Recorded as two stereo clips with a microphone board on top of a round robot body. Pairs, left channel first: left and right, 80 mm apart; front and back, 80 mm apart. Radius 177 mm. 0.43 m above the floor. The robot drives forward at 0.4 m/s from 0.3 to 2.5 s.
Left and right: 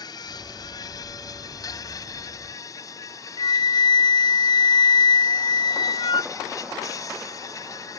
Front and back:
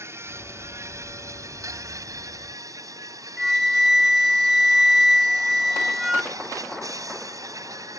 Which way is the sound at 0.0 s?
125° left.